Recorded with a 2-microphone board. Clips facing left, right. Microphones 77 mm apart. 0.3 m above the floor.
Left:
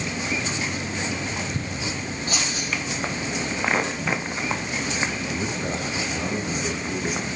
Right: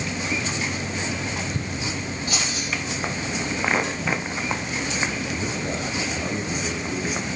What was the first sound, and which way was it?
Keys jangling, 35° left (ahead or behind).